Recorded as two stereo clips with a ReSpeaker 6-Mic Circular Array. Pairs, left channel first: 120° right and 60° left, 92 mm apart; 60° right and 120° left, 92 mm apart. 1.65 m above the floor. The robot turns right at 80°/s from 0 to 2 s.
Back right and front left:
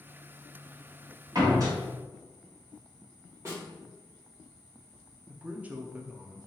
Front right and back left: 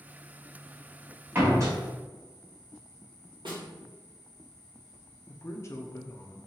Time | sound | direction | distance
1.4 | a door slam | 65° left | 1.3 m
3.5 | a snare drum | 115° left | 1.6 m
5.3 | a man speaking | 10° right | 0.6 m